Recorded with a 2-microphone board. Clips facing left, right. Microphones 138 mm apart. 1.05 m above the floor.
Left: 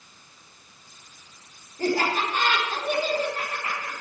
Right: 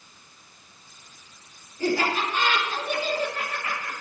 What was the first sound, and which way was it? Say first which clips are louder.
Laughter: even; 50° left (ahead or behind).